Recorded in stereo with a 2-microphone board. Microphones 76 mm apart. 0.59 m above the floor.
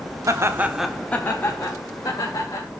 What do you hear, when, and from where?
0.3 s laughter: 45° right (ahead or behind), 1.1 m; by 2.7 s 50° left (ahead or behind), 3 m